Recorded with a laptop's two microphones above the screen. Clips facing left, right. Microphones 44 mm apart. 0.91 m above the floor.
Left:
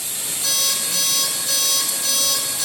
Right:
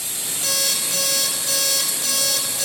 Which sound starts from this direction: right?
An alarm clock, at 0.4 s.